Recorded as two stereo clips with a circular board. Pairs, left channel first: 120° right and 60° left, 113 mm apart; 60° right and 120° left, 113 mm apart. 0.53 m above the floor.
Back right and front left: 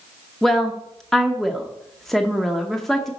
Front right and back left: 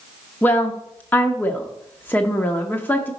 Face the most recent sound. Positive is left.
turn(degrees=-40)